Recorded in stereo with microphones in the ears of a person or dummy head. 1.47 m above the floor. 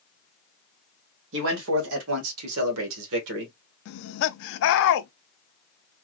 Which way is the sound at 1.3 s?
70° right (ahead or behind).